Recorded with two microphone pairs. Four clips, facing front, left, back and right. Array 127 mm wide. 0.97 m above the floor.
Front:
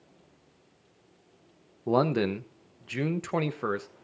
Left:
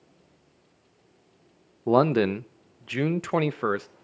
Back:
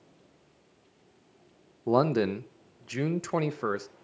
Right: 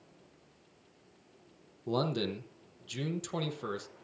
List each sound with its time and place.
1.9 s a man speaking: 100° left, 0.8 m